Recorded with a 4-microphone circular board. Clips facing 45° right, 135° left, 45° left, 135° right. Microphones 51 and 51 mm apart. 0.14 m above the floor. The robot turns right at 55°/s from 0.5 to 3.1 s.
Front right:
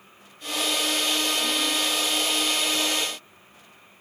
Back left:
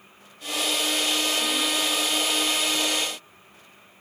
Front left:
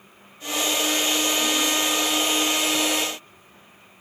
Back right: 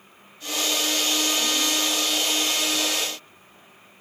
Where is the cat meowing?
No cat meowing in this recording.